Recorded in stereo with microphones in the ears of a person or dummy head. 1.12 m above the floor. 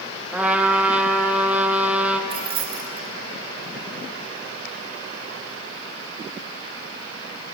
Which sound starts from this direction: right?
Keys jangling, at 2.3 s.